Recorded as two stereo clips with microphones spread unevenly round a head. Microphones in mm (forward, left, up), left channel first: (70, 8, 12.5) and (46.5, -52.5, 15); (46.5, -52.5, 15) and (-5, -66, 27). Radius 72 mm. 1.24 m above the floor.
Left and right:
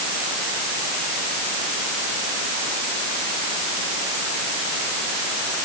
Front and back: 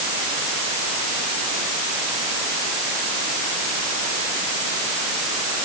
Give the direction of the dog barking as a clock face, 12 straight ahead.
No dog barking in this recording.